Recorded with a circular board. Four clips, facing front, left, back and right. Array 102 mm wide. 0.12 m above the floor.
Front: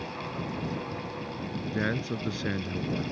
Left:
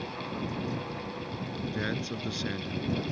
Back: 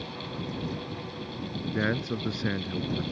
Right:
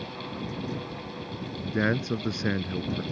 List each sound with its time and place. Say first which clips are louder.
1.6 s a man speaking: right 8 dB, back 2 dB; 100° right